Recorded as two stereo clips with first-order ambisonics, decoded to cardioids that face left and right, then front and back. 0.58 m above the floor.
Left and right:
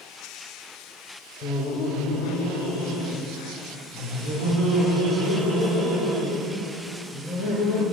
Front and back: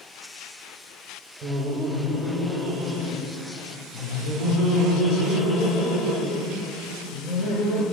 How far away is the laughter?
About 1.4 m.